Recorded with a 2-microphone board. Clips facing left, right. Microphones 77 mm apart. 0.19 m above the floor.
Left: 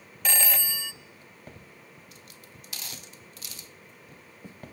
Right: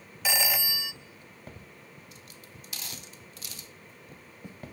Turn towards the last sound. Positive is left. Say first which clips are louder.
# right 1 dB
turn(degrees=-10)  # may be behind; listen again after turning